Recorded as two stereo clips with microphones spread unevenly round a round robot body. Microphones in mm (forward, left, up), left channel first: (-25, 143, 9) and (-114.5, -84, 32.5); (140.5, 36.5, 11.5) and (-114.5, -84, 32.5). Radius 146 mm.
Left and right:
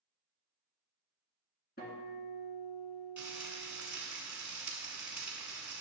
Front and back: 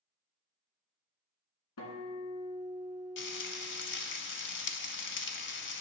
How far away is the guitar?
About 2 m.